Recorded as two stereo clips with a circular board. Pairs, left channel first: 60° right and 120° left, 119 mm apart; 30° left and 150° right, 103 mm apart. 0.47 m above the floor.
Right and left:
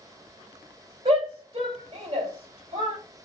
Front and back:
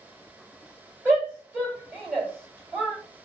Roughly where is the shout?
Behind left.